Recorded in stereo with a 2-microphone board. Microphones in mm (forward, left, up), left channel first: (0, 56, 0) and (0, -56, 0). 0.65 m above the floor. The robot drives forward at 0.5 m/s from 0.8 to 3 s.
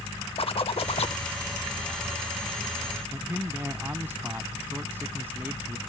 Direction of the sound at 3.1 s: 20° right (ahead or behind).